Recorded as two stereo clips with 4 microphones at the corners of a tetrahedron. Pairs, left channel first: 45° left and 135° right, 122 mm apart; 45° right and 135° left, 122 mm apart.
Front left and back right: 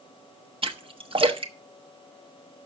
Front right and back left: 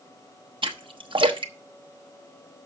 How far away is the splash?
About 1.0 m.